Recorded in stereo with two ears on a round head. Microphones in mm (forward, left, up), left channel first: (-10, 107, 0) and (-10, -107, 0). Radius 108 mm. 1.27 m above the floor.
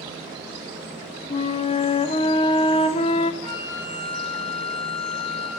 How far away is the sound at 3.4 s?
About 4.5 m.